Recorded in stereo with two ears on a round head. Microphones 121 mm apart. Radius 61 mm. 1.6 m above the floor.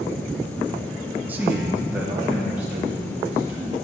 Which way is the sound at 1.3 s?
15° right (ahead or behind).